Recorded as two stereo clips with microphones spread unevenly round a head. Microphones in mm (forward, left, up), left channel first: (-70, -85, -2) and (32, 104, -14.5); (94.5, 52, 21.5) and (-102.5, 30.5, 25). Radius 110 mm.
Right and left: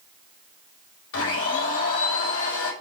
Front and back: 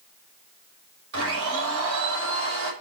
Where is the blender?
150° right, 5.5 m.